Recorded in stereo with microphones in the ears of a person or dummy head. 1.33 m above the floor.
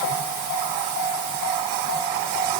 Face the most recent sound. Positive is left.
No sound to turn to.